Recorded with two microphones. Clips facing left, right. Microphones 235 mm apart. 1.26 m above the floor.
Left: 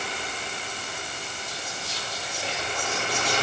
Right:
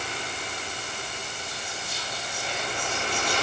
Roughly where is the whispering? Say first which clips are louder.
Left 1 dB; left.